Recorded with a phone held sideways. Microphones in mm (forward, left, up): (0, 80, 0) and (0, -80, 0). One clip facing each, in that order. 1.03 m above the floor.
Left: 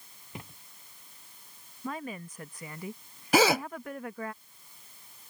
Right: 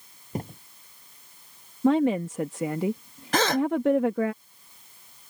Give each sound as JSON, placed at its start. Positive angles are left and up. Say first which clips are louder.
{"t": 0.3, "sound": "a thud", "louder": "right 12 dB", "side_deg": -45}
{"t": 1.8, "sound": "a woman speaking", "louder": "right 17 dB", "side_deg": -80}
{"t": 3.3, "sound": "a gasp", "louder": "even", "side_deg": 10}